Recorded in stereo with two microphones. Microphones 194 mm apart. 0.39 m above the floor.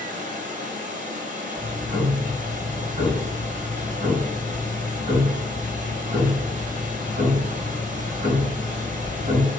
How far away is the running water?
About 0.8 m.